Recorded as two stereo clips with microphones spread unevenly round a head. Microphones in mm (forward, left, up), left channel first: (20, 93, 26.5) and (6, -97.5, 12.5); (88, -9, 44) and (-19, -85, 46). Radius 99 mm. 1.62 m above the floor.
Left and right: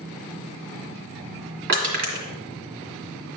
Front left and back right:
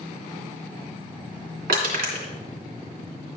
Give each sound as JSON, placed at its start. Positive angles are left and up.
{"t": 1.7, "sound": "crushing", "azimuth_deg": -135, "distance_m": 2.5}